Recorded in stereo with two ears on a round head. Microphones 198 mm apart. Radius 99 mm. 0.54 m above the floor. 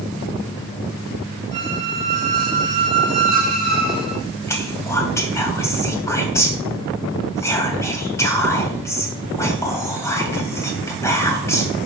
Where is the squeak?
40° left (ahead or behind), 6 m.